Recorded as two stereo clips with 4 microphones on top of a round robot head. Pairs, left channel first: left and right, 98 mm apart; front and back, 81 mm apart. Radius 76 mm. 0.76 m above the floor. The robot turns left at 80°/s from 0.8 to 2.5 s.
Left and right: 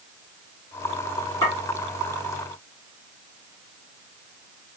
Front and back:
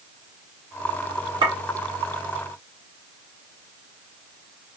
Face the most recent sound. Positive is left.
turn(degrees=70)